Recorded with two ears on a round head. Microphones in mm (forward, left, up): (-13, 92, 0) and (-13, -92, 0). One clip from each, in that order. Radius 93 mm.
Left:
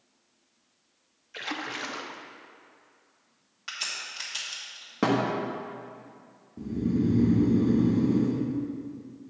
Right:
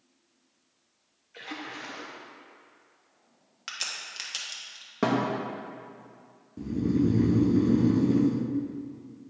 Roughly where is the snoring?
Right.